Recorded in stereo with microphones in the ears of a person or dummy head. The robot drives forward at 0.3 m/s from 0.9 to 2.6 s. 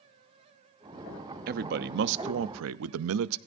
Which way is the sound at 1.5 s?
50° right (ahead or behind).